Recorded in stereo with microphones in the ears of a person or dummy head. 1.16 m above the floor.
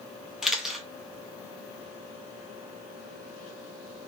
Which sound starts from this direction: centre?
A camera shutter, at 0.4 s.